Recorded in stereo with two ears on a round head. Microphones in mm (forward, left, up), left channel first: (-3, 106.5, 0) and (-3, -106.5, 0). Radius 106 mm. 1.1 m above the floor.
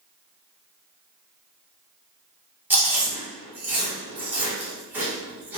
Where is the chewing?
10° right (ahead or behind), 1.2 m.